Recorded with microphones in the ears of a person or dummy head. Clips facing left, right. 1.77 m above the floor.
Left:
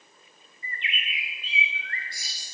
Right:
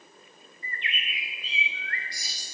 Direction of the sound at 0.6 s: 25° left (ahead or behind).